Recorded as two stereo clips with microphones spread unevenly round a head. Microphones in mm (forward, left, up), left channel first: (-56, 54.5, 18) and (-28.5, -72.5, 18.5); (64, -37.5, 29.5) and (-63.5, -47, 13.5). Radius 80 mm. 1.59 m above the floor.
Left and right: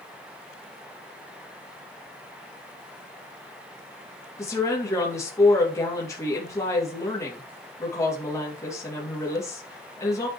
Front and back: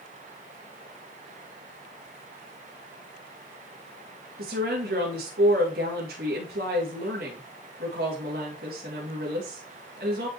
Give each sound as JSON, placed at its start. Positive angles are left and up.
{"t": 4.4, "sound": "a woman speaking", "azimuth_deg": 170, "distance_m": 2.5}